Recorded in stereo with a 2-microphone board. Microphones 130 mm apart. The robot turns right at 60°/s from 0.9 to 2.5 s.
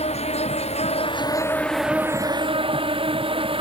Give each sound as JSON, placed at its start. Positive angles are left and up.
{"t": 0.0, "sound": "an insect", "azimuth_deg": 125}